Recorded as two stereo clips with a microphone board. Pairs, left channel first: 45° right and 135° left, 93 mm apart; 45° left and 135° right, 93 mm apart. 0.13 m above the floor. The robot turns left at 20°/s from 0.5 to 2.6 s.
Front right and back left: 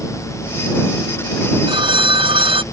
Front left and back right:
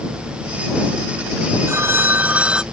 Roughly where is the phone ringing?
Behind.